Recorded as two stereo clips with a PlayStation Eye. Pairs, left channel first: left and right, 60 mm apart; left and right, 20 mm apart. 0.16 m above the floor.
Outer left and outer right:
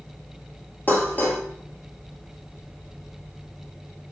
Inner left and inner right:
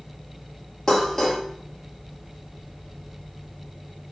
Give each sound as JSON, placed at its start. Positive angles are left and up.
{"t": 0.9, "sound": "dishes clattering", "side_deg": 30, "distance_m": 2.5}